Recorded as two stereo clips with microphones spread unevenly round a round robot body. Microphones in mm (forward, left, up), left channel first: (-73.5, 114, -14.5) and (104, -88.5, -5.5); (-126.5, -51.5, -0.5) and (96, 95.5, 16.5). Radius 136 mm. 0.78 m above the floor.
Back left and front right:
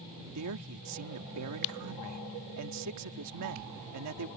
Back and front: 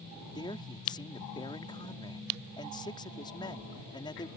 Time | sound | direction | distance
0.3 | a man speaking | 75° right | ?